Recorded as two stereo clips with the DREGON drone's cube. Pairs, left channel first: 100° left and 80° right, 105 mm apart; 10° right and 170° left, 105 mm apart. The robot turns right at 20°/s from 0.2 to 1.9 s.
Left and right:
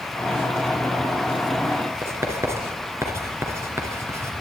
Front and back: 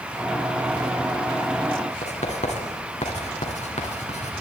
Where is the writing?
15° right, 2 m.